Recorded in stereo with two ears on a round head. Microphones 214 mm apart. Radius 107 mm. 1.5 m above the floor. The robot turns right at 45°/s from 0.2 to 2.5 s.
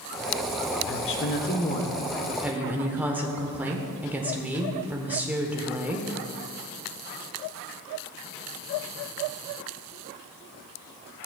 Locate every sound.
0.9 s a woman speaking: 115° left, 1.0 m; by 6.1 s 170° right, 1.0 m